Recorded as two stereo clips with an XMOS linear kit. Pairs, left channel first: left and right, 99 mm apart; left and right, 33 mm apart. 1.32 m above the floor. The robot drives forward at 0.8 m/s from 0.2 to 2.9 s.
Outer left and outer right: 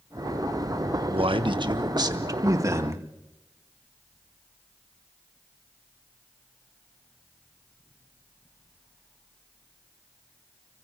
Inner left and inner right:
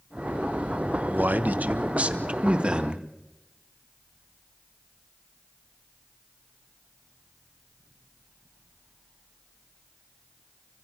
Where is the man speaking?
65° right (ahead or behind), 1.2 m; by 3.1 s 30° right (ahead or behind), 2 m.